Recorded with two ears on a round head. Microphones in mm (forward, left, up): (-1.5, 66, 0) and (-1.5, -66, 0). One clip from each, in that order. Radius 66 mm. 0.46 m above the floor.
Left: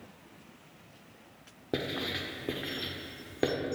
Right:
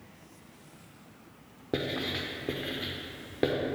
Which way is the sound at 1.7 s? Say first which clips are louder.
Right 1 dB; 10° left (ahead or behind).